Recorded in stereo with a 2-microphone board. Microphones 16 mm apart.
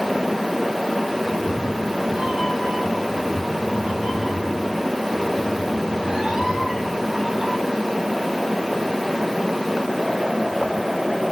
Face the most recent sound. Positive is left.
turn(degrees=-25)  # may be behind; listen again after turning